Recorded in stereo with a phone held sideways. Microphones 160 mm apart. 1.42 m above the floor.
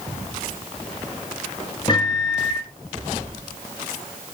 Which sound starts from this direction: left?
A microwave, at 1.9 s.